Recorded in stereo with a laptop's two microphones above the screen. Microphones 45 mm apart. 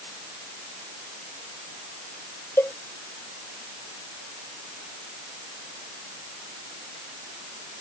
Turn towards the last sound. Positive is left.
turn(degrees=55)  # may be behind; listen again after turning